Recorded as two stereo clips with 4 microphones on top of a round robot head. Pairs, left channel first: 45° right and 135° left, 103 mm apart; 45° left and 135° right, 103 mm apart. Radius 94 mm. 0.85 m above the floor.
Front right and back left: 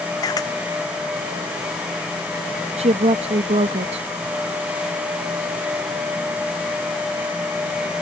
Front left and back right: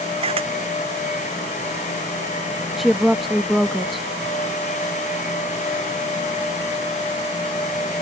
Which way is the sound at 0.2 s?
105° right.